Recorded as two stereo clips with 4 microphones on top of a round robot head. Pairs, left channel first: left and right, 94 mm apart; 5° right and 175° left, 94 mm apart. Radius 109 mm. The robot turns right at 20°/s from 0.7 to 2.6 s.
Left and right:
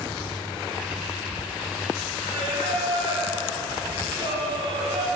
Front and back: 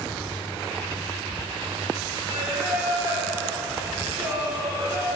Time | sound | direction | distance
2.2 | singing | 125° right | 9.5 m